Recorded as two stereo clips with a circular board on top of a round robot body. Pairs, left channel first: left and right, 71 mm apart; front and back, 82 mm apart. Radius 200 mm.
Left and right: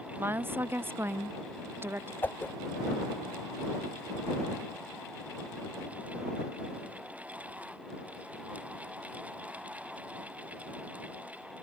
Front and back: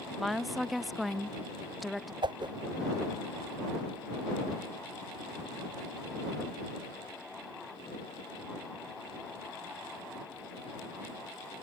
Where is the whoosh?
155° left.